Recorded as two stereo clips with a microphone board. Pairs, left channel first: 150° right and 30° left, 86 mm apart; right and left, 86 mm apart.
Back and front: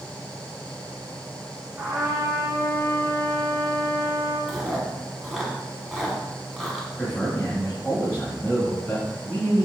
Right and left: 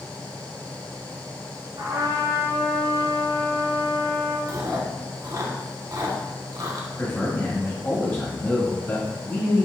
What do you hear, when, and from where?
1.8 s a trumpet: 85° left, 1.3 m
4.5 s chewing: 115° left, 0.9 m
7.0 s a man speaking: 105° right, 1.5 m